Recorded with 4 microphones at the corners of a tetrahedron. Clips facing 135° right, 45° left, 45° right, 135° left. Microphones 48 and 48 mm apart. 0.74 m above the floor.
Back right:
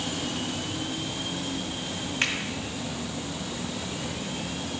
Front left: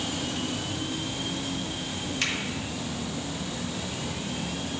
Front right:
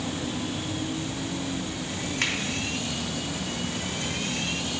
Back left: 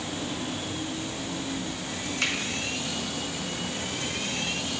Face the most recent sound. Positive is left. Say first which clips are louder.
# back right 3 dB, even
turn(degrees=-70)